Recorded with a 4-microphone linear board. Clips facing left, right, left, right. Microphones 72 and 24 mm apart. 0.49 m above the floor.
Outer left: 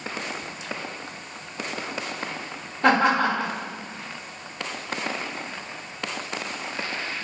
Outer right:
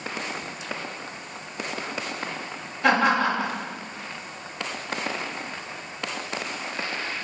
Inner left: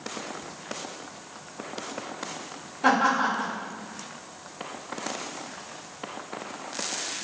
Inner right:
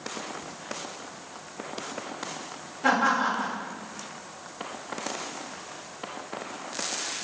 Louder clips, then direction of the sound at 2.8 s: Outer left 1 dB, inner left 1 dB; 50° left (ahead or behind).